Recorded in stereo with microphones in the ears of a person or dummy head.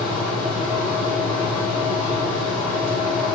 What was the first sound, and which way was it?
A fan, 35° right (ahead or behind).